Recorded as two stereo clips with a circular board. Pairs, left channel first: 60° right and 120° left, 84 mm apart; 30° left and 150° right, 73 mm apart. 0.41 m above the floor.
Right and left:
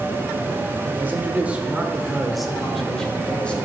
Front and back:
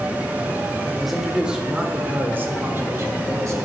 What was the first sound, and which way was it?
A man speaking, 120° left.